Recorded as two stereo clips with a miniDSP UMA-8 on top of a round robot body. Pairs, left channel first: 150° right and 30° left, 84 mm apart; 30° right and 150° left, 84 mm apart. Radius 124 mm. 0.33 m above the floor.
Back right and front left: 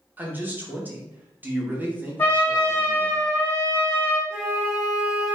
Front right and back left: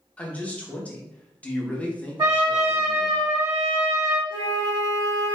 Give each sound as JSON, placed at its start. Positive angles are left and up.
{"t": 0.2, "sound": "a man speaking", "azimuth_deg": 15, "distance_m": 0.8}
{"t": 2.2, "sound": "a trumpet", "azimuth_deg": 160, "distance_m": 1.8}
{"t": 4.3, "sound": "a flute", "azimuth_deg": 95, "distance_m": 1.2}